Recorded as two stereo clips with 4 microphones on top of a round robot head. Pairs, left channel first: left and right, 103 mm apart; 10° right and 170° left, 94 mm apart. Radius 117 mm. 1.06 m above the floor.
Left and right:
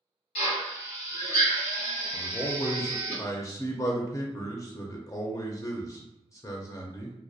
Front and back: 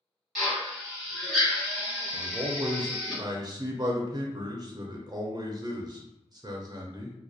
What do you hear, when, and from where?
0.3 s a drill: 80° left, 0.8 m
2.1 s a man speaking: 140° left, 0.5 m